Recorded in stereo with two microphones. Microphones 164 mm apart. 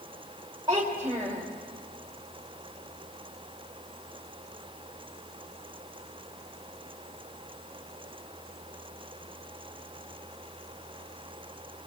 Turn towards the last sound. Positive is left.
turn(degrees=-25)  # may be behind; listen again after turning